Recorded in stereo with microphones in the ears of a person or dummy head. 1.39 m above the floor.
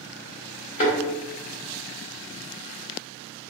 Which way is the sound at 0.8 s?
35° left (ahead or behind).